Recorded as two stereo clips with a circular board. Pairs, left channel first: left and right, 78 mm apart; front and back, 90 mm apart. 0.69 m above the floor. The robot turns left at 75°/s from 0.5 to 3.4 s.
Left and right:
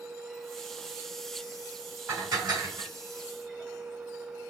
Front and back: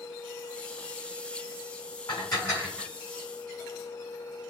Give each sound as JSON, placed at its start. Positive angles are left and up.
{"t": 2.1, "sound": "dishes clattering", "azimuth_deg": -30, "distance_m": 3.0}